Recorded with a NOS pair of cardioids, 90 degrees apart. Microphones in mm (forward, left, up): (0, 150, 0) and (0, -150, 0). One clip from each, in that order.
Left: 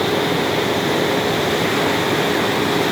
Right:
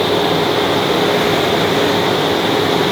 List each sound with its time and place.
0.0 s a fan: 35° right